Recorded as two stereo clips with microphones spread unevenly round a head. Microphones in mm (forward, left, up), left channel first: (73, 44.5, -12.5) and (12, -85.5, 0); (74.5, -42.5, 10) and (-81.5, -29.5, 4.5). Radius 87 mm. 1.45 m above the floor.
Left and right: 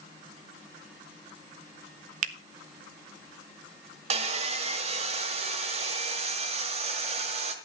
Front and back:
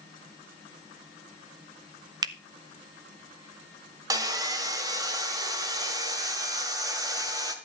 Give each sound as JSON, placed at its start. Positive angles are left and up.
{"t": 2.2, "sound": "a finger snap", "azimuth_deg": -125, "distance_m": 0.8}
{"t": 4.1, "sound": "sawing", "azimuth_deg": -125, "distance_m": 1.7}